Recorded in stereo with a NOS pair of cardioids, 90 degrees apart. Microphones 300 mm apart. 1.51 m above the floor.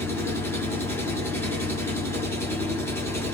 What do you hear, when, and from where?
0.0 s an engine running: 10° left, 1.7 m